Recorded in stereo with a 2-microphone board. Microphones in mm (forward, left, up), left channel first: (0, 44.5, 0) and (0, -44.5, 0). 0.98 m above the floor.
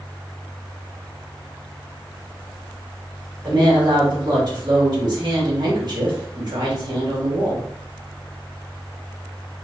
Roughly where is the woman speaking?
Right.